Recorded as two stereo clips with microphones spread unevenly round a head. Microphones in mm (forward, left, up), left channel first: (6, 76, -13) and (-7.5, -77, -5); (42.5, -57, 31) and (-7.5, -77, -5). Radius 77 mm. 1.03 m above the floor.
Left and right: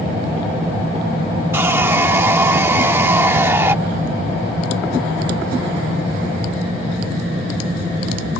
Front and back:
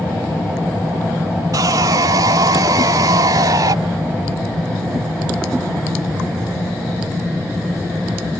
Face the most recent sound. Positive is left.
turn(degrees=-170)